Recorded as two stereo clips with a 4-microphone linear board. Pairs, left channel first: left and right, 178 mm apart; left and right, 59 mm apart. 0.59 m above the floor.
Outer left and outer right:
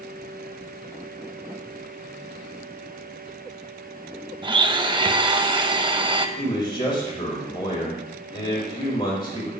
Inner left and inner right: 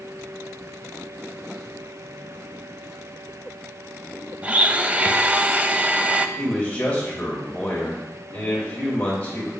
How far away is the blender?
About 0.5 m.